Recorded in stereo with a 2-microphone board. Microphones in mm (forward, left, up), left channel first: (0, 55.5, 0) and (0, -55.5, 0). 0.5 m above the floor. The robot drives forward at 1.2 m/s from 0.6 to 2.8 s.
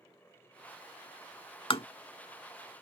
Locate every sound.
1.7 s tapping: 55° left (ahead or behind); by 1.9 s 65° left (ahead or behind)